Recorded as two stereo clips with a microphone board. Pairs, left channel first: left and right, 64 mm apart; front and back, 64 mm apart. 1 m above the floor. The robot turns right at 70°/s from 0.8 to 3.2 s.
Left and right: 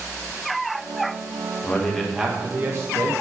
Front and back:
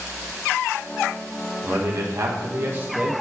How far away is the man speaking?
About 1.0 m.